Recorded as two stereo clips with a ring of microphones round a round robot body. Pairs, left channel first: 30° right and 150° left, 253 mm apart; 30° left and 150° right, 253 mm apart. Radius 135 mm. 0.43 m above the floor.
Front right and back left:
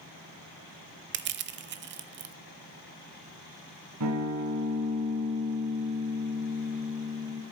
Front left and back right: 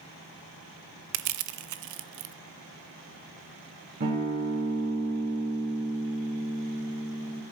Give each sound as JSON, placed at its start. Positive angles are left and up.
{"t": 1.1, "sound": "crushing", "azimuth_deg": -160, "distance_m": 0.8}
{"t": 4.0, "sound": "a guitar", "azimuth_deg": 165, "distance_m": 4.5}